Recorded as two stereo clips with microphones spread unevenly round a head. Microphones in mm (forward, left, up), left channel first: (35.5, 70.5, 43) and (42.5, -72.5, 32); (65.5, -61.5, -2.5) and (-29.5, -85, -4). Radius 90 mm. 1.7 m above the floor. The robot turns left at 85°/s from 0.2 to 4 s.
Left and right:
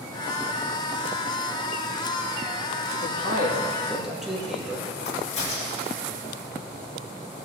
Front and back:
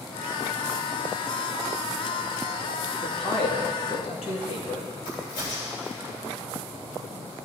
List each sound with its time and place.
2.9 s a man speaking: 90° left, 2.5 m; by 4.9 s straight ahead, 2.5 m
5.0 s a crack: 55° left, 3.5 m